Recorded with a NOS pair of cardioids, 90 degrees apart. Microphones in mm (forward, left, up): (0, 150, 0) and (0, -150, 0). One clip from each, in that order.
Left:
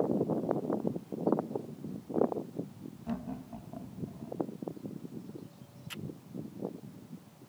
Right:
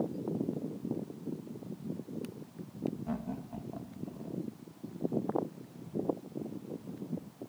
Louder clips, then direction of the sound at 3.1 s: Right 1 dB; 5° right.